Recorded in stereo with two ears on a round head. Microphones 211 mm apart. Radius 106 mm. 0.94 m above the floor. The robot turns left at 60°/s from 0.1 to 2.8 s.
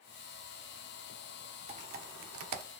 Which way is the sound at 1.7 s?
30° right (ahead or behind).